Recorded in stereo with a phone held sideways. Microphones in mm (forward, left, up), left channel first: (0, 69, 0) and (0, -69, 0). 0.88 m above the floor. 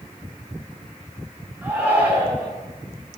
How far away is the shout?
About 9 m.